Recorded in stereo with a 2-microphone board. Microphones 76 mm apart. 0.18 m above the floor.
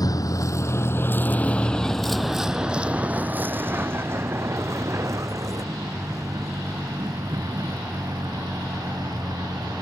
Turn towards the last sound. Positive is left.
turn(degrees=-55)  # may be behind; listen again after turning